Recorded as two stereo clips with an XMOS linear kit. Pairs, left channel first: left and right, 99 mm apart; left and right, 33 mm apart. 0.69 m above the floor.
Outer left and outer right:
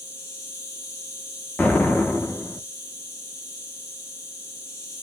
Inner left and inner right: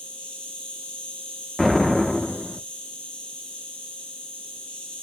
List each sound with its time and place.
0.0 s an insect: 30° left (ahead or behind), 2 m
1.6 s an explosion: 15° left (ahead or behind), 0.6 m